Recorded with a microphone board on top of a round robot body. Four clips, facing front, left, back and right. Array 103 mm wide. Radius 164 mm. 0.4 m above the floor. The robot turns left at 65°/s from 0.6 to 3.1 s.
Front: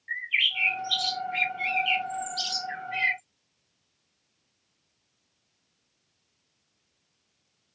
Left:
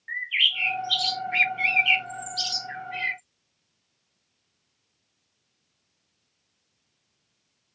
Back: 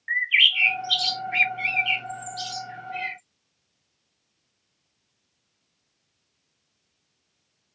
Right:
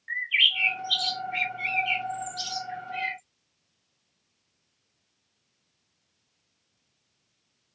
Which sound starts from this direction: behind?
A bird, at 0.1 s.